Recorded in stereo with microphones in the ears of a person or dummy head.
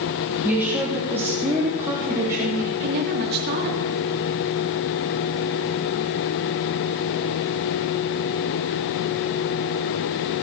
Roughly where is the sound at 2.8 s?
Right.